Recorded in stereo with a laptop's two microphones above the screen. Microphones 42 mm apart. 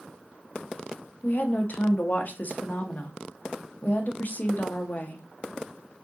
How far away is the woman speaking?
About 0.7 m.